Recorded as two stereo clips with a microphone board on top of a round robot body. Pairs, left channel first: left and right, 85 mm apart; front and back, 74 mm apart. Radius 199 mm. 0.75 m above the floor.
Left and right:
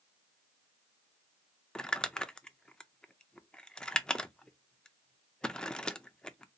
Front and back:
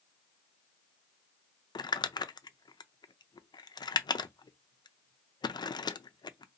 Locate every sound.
1.8 s crumpling: 10° left, 0.5 m